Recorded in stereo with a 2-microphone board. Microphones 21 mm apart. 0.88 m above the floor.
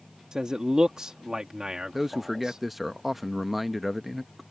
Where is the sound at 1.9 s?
10° right (ahead or behind).